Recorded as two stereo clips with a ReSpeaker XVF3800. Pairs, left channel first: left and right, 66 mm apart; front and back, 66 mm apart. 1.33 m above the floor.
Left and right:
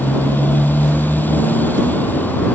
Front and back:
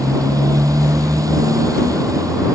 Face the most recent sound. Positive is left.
turn(degrees=150)